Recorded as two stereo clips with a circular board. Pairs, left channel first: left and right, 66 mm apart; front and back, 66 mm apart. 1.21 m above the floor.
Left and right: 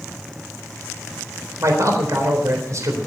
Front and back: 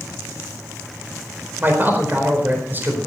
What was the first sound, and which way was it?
A man speaking, 125° right.